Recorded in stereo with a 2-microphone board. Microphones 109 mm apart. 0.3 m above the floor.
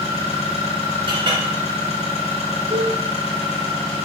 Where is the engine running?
90° left, 2.5 m.